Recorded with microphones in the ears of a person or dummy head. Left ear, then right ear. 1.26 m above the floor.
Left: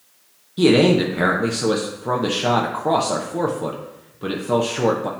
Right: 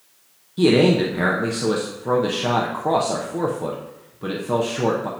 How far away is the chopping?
I don't hear chopping.